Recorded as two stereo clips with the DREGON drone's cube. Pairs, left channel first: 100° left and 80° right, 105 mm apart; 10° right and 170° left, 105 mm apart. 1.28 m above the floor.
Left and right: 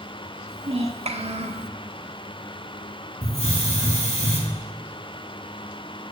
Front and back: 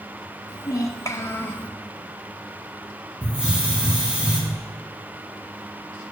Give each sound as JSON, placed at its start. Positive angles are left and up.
{"t": 0.5, "sound": "a child speaking", "azimuth_deg": -65, "distance_m": 1.4}
{"t": 3.2, "sound": "a hiss", "azimuth_deg": 90, "distance_m": 3.0}